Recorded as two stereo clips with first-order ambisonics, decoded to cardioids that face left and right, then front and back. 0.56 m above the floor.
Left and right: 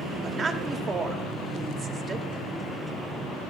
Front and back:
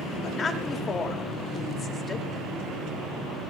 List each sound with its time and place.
0.2 s a woman speaking: 55° right, 1.2 m